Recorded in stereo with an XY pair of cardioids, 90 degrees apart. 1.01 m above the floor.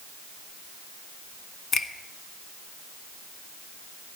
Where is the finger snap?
55° left, 1.2 m.